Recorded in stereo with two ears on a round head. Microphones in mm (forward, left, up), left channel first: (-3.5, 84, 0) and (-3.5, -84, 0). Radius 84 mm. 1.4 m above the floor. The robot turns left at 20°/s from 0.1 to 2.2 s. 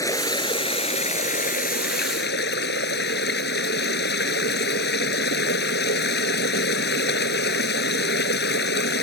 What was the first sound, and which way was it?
Running water, 160° left.